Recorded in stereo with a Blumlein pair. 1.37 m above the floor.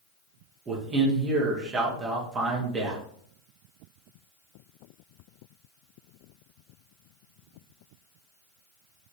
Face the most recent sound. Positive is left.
turn(degrees=-20)